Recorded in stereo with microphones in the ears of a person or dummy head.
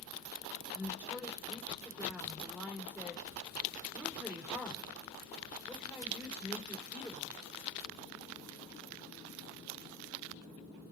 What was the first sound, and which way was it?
A woman speaking, 10° right (ahead or behind).